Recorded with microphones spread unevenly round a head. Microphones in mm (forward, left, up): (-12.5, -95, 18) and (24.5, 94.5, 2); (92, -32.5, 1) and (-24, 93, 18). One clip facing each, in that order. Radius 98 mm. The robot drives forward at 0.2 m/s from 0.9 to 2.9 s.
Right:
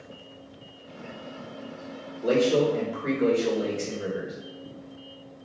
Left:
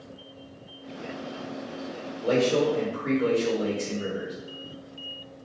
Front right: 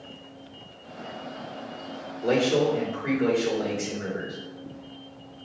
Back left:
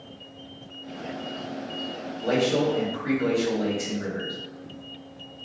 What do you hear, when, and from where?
2.2 s a man speaking: 105° right, 1.8 m